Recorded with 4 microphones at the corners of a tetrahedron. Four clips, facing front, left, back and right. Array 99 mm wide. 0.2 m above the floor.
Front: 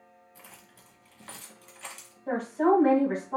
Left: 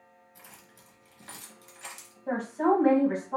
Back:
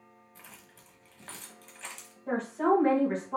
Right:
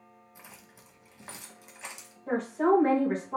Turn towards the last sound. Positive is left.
turn(degrees=50)